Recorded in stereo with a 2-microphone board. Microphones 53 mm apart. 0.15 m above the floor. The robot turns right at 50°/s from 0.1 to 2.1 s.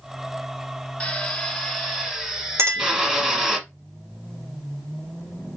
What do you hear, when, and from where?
1.0 s a drill: 20° left (ahead or behind), 1.3 m; by 3.6 s 10° right (ahead or behind), 1.3 m
2.6 s a clink: 55° right (ahead or behind), 1.4 m